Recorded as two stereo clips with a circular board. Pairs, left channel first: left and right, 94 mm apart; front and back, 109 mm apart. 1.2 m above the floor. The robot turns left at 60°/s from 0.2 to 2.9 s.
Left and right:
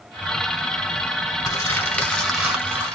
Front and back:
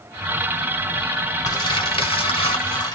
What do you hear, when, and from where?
1.4 s crumpling: 50° left, 1.4 m; by 3.0 s 35° right, 1.4 m